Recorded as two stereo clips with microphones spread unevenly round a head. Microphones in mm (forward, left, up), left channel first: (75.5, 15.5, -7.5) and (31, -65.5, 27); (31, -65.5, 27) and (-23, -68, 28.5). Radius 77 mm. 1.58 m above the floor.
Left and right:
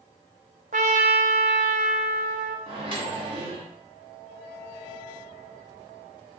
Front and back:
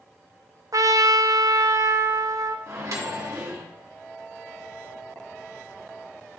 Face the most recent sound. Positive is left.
turn(degrees=-155)